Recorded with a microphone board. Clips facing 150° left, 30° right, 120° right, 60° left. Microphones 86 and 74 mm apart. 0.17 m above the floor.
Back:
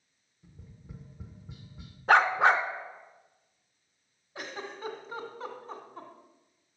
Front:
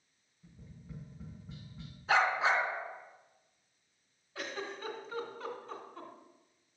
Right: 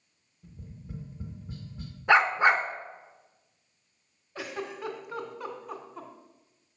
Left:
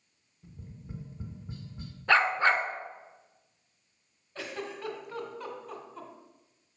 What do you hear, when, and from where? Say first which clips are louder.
0.4 s tapping: even, right 1 dB; 95° left, 1.3 m
2.1 s a dog barking: back 6 dB, right 3 dB; 170° left, 0.6 m
4.3 s a giggle: back 1 dB, right 2 dB; straight behind, 1.6 m